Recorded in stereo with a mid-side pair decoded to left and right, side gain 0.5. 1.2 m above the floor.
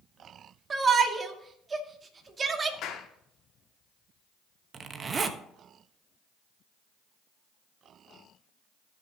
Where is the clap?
70° left, 1.9 m.